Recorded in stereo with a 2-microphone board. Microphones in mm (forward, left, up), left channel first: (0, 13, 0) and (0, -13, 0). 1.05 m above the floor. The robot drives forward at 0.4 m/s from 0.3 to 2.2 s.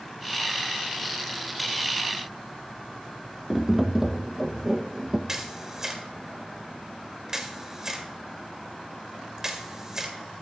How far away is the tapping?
About 0.9 m.